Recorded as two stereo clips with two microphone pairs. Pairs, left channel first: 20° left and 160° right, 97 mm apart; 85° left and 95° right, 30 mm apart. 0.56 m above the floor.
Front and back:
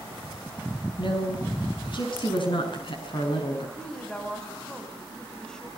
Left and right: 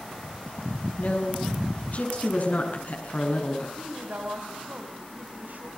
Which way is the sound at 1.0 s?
55° left.